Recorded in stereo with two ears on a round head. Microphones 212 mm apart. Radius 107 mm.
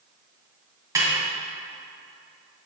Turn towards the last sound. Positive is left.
turn(degrees=-15)  # may be behind; listen again after turning